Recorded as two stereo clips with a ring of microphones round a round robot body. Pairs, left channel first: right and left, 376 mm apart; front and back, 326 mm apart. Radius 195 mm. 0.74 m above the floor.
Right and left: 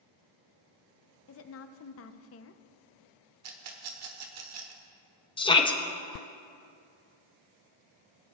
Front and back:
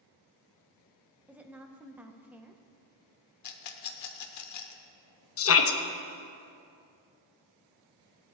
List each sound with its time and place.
1.3 s a woman speaking: 100° right, 0.6 m
3.4 s a rattle: 40° left, 1.1 m
5.4 s a shout: 20° right, 0.9 m